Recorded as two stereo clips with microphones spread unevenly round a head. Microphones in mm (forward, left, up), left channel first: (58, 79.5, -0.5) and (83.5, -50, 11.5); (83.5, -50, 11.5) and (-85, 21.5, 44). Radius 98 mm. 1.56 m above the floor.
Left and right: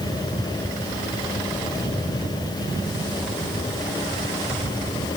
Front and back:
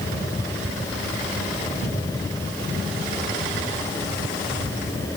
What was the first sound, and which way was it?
Only background noise.